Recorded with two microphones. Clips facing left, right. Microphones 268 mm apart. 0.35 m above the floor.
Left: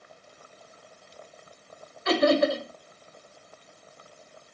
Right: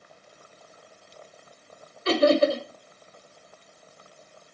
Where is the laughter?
35° right (ahead or behind), 1.1 m.